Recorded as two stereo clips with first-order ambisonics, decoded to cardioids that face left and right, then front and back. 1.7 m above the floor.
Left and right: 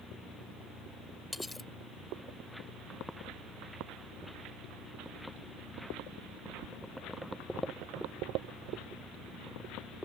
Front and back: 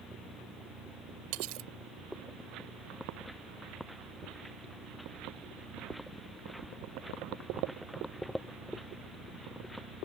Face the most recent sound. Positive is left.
turn(degrees=175)